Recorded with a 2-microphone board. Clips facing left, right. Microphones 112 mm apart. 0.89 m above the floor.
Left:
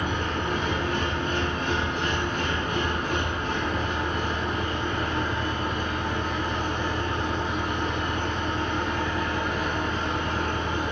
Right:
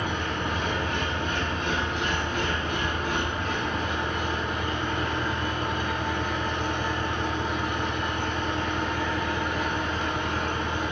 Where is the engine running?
50° left (ahead or behind), 3 m.